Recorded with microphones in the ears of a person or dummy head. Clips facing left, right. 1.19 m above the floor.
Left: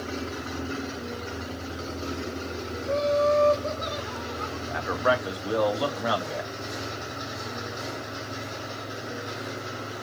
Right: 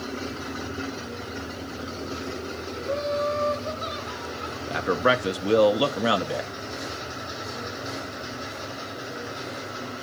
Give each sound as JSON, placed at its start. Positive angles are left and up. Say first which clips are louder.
{"t": 2.8, "sound": "laughter", "louder": "left 4 dB", "side_deg": 75, "distance_m": 3.5}
{"t": 4.7, "sound": "a man speaking", "louder": "right 3 dB", "side_deg": -35, "distance_m": 0.6}